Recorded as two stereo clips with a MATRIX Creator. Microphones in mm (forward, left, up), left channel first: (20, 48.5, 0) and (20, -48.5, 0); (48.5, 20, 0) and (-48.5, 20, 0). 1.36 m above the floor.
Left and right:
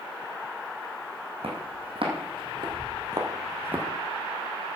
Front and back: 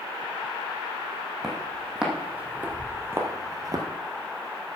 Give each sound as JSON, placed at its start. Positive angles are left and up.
{"t": 1.4, "sound": "footsteps", "azimuth_deg": -95, "distance_m": 3.5}